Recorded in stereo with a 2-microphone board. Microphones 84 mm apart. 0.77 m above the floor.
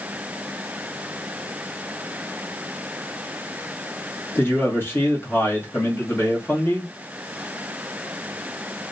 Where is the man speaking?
30° left (ahead or behind), 1.2 m.